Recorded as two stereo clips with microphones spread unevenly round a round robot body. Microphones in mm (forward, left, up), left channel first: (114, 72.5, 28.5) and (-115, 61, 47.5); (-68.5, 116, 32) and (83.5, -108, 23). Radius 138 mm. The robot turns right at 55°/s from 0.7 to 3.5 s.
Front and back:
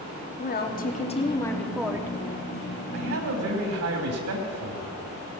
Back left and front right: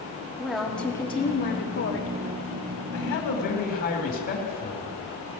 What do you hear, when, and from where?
0.4 s a woman speaking: 35° left, 1.4 m; by 2.1 s 110° left, 1.4 m
2.9 s a man speaking: 150° left, 2.5 m; by 5.0 s 175° right, 2.5 m